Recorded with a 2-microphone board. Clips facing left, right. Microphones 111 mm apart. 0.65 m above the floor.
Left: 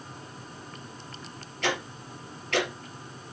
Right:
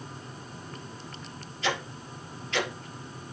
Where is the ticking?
65° left (ahead or behind), 3.5 m.